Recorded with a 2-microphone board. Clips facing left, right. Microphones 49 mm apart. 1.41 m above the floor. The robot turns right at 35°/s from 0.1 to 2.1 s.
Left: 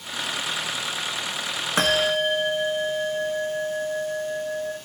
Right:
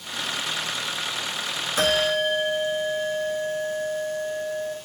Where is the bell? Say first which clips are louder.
Even; 55° left (ahead or behind), 1.0 m; by 4.8 s 45° left (ahead or behind), 1.0 m.